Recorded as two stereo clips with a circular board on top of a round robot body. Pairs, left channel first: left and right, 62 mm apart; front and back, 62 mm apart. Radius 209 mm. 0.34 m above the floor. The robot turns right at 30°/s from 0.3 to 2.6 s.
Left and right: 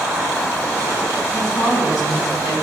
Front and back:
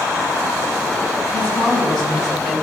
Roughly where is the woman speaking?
Ahead left.